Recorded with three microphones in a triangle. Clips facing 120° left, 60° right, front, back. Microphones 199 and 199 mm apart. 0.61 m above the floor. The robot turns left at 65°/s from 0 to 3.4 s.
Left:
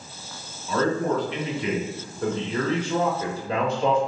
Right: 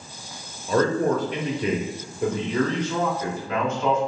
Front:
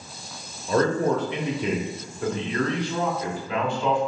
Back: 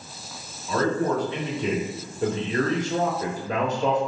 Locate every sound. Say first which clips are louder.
0.7 s a man speaking: right 3 dB, front 2 dB; 25° right, 1.1 m; by 4.0 s 160° left, 1.1 m